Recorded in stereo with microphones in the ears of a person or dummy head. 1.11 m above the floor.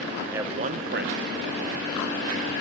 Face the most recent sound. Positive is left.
turn(degrees=-40)  # may be behind; listen again after turning